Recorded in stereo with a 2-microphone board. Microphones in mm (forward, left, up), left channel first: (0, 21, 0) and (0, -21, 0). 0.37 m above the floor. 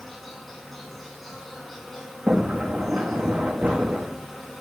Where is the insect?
5° left (ahead or behind), 4 m.